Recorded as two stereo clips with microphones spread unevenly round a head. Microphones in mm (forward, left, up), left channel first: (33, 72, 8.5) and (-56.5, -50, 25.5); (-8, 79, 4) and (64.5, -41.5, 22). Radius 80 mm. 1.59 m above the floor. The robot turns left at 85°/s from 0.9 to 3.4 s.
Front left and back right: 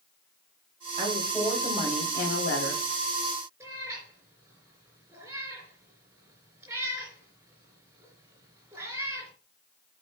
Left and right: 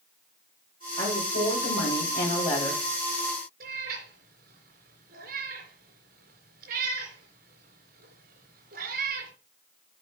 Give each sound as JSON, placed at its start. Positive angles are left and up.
{"t": 1.0, "sound": "a woman speaking", "azimuth_deg": -170, "distance_m": 5.0}
{"t": 3.6, "sound": "a cat meowing", "azimuth_deg": -55, "distance_m": 3.5}